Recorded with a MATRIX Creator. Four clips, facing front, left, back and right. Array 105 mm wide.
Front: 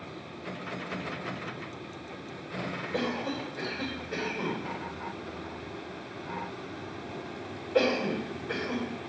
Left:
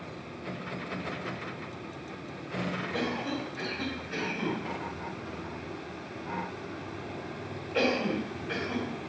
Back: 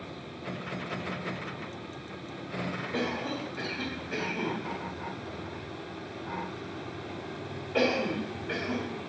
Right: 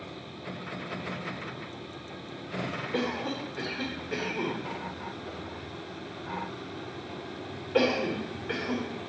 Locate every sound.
2.9 s a cough: 100° right, 3 m